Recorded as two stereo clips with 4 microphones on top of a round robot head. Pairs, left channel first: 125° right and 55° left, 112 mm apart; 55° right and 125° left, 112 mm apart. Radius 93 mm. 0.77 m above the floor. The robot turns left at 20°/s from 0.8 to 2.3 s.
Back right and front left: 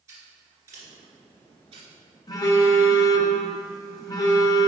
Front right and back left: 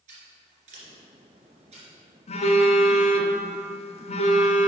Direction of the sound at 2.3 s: 70° right.